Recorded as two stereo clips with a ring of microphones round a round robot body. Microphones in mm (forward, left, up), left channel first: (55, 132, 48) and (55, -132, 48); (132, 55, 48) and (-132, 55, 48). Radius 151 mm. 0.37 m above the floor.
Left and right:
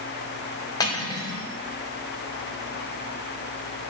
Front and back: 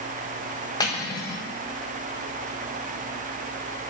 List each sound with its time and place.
0.8 s cutlery clinking: 45° left, 0.6 m